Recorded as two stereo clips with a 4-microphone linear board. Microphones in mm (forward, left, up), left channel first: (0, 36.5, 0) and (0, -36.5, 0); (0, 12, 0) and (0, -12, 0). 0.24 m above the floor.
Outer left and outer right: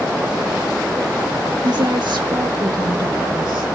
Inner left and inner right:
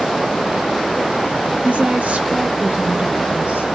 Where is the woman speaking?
70° right (ahead or behind), 4.5 m; by 3.7 s 75° right (ahead or behind), 5.5 m.